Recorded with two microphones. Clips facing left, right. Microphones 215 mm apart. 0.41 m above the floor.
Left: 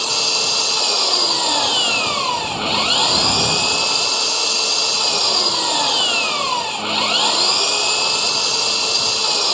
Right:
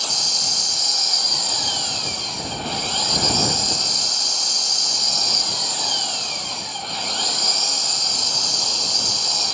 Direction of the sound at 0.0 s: 75° left (ahead or behind).